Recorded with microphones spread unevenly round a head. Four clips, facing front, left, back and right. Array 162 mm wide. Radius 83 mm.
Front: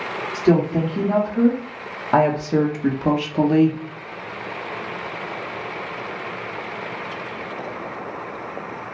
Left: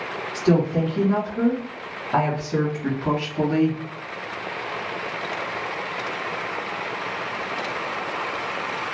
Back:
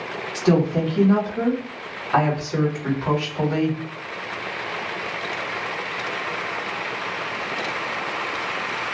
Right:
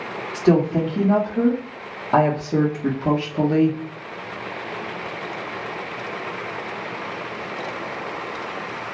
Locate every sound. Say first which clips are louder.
0.3 s a woman speaking: right 3 dB, front 2 dB; 80° right, 1.7 m; by 3.8 s 5° right, 1.1 m